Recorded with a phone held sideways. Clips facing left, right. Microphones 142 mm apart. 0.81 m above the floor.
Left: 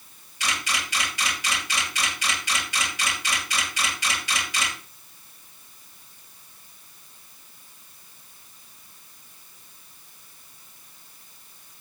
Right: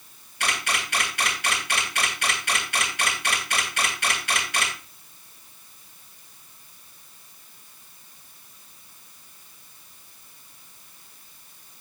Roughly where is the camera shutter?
Right.